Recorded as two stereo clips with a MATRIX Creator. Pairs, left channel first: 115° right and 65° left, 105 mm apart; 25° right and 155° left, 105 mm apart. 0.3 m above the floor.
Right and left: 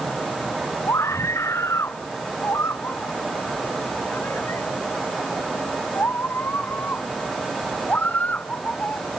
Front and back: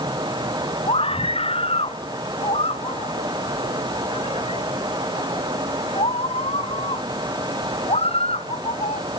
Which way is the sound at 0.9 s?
50° right.